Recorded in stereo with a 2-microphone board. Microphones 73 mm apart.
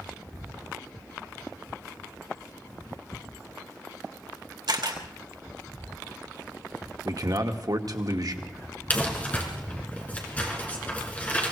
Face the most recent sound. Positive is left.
turn(degrees=20)  # may be behind; listen again after turning